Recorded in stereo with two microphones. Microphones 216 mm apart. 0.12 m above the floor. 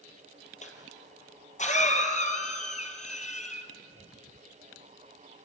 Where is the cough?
35° left (ahead or behind), 3 m.